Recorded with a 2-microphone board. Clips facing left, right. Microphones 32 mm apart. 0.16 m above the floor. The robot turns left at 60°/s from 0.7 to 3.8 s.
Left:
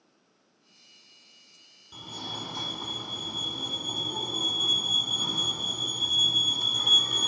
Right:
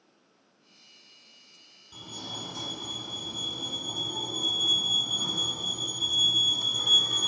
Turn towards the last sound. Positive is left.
turn(degrees=10)  # may be behind; listen again after turning